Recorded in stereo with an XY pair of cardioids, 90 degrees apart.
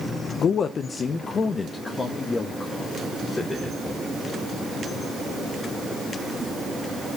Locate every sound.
0.4 s a man speaking: 65° left, 0.6 m; by 4.0 s 40° left, 3 m